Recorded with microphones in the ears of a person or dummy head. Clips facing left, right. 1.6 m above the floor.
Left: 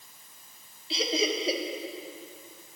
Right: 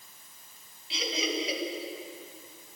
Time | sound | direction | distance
0.9 | laughter | 35° left (ahead or behind) | 1.5 m